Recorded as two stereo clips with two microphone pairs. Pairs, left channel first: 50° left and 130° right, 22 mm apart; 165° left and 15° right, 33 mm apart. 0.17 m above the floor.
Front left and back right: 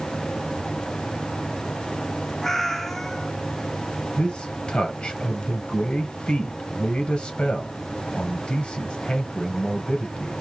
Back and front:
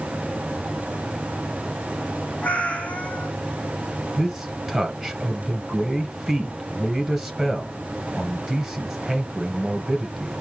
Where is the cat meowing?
125° left, 0.9 m.